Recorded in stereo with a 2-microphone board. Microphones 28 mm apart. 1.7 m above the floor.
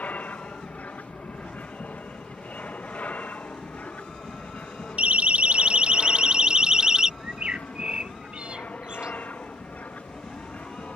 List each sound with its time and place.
0.0 s an aircraft: 65° left (ahead or behind)
5.0 s a siren: 60° right (ahead or behind); by 7.1 s 25° right (ahead or behind)
7.2 s a bird: 45° right (ahead or behind)